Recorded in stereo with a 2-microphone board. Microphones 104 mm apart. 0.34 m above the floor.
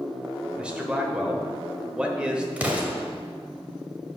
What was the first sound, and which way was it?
A man speaking, 10° right (ahead or behind).